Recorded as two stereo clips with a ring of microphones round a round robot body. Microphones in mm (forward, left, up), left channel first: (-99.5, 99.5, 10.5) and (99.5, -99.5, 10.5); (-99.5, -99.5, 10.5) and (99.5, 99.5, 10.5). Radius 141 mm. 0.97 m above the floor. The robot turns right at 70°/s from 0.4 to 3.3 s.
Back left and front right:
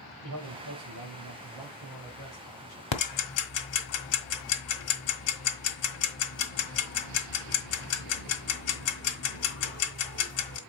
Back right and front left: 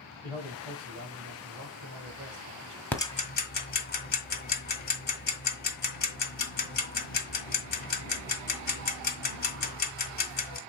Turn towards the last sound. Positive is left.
turn(degrees=170)